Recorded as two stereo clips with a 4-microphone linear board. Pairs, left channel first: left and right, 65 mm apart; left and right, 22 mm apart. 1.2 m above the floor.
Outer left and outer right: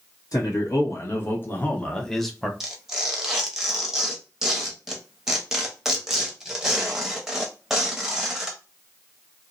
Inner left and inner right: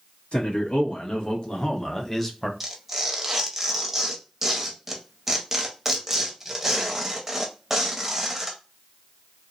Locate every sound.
0.3 s a man speaking: 60° left (ahead or behind), 1.2 m; by 2.5 s 5° right (ahead or behind), 0.8 m
2.6 s tearing paper: 5° right (ahead or behind), 0.7 m